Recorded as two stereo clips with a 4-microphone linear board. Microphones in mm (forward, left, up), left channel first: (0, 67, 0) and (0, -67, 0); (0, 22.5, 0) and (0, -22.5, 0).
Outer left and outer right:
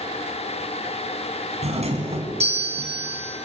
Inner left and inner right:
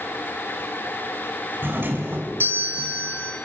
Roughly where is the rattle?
I don't hear a rattle.